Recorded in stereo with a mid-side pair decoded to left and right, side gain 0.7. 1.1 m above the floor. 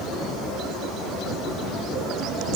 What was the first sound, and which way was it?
Only background noise.